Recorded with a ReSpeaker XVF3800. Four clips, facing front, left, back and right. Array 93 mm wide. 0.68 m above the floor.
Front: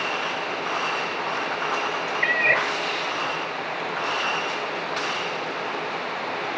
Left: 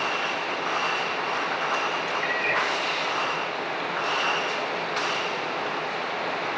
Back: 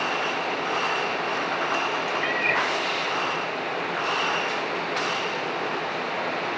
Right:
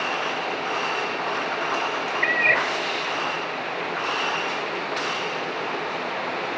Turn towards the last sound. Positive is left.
turn(degrees=-45)